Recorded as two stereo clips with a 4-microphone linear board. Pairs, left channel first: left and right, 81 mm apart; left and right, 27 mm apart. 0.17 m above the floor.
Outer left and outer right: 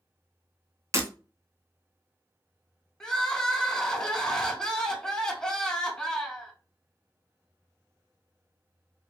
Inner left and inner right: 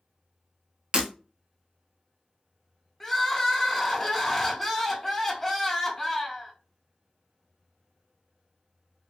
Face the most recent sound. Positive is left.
turn(degrees=10)  # may be behind; listen again after turning